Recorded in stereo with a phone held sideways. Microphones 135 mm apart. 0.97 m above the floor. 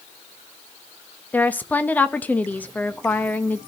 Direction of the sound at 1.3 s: 15° left (ahead or behind).